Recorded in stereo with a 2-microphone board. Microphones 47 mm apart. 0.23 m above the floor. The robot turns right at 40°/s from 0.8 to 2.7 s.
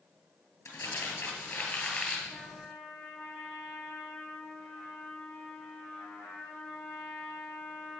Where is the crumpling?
95° left, 2.5 m; by 2.2 s 150° left, 2.5 m.